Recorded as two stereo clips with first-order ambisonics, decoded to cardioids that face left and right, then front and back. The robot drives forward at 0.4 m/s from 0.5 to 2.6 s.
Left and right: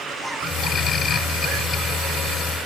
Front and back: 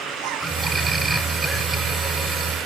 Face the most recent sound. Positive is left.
No sound to turn to.